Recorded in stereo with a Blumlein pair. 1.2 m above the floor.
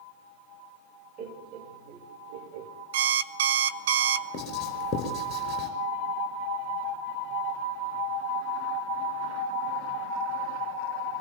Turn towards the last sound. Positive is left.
turn(degrees=25)